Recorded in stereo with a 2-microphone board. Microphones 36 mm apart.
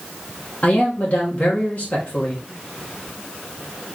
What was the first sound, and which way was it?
A man speaking, 50° left (ahead or behind).